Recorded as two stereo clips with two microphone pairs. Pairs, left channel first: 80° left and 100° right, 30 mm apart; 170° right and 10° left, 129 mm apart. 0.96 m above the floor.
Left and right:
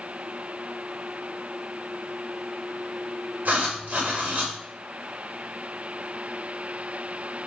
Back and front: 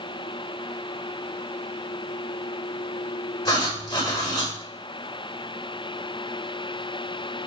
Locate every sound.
3.5 s writing: 110° right, 5 m